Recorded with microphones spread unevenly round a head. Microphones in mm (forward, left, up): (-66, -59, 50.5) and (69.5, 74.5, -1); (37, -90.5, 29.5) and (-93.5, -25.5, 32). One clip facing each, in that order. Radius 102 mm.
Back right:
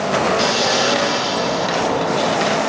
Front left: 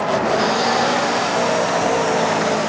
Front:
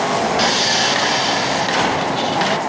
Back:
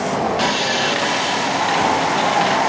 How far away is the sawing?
About 1.0 m.